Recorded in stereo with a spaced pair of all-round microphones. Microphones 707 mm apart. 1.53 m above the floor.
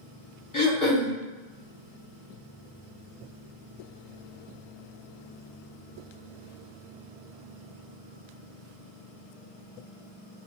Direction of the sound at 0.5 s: 25° left (ahead or behind).